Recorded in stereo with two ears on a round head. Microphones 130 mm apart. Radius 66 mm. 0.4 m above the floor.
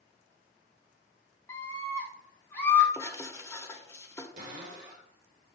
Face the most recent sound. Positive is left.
turn(degrees=-55)  # may be behind; listen again after turning